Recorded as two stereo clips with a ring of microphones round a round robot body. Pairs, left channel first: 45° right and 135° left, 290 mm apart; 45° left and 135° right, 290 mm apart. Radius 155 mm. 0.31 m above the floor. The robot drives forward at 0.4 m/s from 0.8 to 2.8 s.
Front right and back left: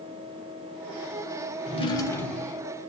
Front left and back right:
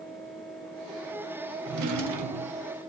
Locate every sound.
1.6 s a drawer: 110° right, 0.6 m; by 2.7 s 140° right, 0.8 m